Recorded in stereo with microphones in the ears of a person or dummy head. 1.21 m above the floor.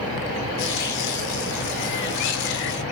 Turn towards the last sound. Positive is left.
turn(degrees=65)  # may be behind; listen again after turning